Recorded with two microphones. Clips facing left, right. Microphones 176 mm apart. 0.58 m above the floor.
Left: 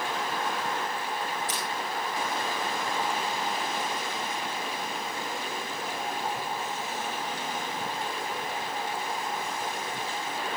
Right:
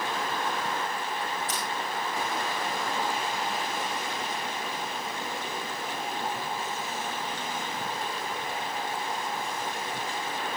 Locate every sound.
1.5 s crushing: 60° right (ahead or behind), 6.5 m